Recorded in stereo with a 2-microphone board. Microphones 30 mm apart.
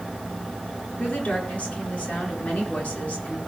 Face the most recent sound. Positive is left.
turn(degrees=60)  # may be behind; listen again after turning